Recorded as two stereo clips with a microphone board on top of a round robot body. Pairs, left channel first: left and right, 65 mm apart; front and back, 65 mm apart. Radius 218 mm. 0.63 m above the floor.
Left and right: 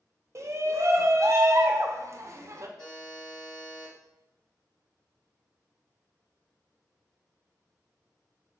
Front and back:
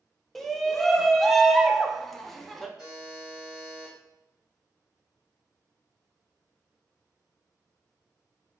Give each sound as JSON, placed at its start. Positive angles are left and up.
{"t": 0.3, "sound": "a shout", "azimuth_deg": -85, "distance_m": 0.7}
{"t": 2.8, "sound": "a buzzer", "azimuth_deg": 95, "distance_m": 1.8}